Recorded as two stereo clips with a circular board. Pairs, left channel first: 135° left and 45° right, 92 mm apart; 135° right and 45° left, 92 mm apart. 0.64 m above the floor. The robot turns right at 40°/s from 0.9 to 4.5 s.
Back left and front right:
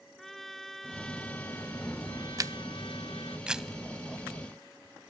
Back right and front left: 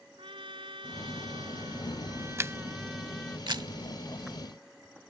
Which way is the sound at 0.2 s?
50° left.